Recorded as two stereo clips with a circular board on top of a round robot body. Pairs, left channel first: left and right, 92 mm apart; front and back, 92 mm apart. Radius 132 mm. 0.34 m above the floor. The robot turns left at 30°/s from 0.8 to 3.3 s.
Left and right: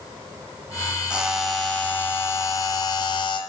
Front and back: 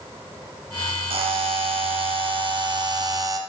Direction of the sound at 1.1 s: 170° right.